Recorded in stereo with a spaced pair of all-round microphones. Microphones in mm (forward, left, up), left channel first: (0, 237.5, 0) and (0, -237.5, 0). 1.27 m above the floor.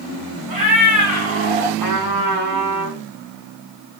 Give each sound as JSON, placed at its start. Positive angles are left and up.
{"t": 0.5, "sound": "a cat meowing", "side_deg": -45, "distance_m": 1.1}
{"t": 1.8, "sound": "a trumpet", "side_deg": -45, "distance_m": 1.2}